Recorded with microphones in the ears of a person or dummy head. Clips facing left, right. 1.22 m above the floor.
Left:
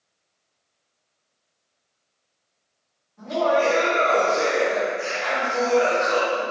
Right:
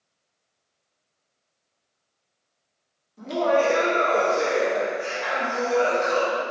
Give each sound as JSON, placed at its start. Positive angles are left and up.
{"t": 3.2, "sound": "laughter", "side_deg": -45, "distance_m": 0.7}